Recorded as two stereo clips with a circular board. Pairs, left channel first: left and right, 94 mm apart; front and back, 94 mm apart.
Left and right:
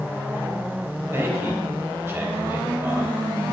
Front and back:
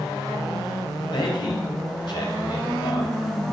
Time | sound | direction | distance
1.1 | a man speaking | 30° right | 4 m